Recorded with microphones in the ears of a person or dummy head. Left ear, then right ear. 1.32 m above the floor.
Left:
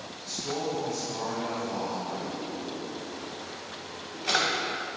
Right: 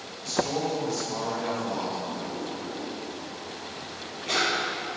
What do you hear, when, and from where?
0.2 s a man speaking: 90° right, 1.8 m
2.1 s a drawer: 65° left (ahead or behind), 0.8 m